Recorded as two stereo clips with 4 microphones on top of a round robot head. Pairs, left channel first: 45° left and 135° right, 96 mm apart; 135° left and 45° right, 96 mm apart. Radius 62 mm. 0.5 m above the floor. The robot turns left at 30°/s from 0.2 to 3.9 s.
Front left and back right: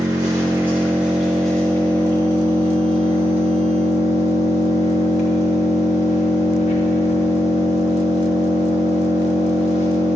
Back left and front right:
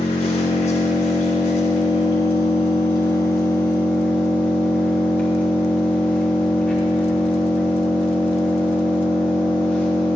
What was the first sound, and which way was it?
An engine running, 170° left.